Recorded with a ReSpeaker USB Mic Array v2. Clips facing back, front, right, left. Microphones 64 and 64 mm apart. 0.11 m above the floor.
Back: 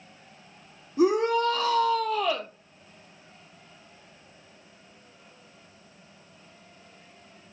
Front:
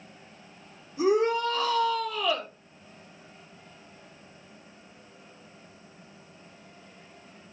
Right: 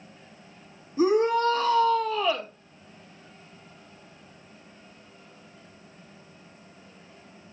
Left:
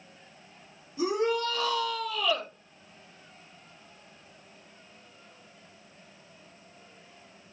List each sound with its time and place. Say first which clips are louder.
1.0 s a shout: back 2 dB, right 6 dB; 140° right, 3.5 m